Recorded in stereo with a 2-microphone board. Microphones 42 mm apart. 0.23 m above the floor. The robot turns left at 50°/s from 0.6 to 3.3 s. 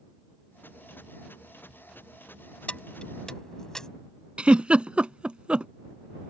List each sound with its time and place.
2.7 s keys jangling: 30° left (ahead or behind); by 3.9 s 15° left (ahead or behind)
4.4 s a giggle: 30° right (ahead or behind)